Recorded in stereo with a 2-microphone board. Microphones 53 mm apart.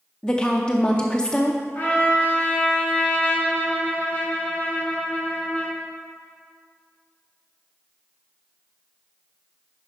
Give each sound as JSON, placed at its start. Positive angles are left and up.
{"t": 0.2, "sound": "a woman speaking", "side_deg": 15, "distance_m": 0.6}
{"t": 1.8, "sound": "a trumpet", "side_deg": 30, "distance_m": 2.5}